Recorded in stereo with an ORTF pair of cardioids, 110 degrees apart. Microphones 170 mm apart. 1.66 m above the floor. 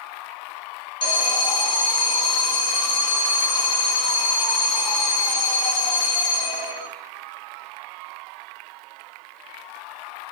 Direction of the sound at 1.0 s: 30° left.